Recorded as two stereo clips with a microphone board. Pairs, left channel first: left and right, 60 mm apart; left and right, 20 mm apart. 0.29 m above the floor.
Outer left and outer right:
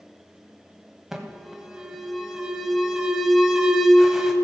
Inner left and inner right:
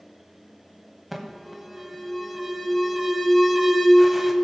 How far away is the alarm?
About 1.2 m.